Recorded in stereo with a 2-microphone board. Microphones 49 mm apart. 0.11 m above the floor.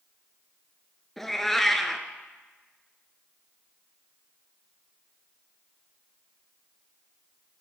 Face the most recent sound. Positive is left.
turn(degrees=5)  # may be behind; listen again after turning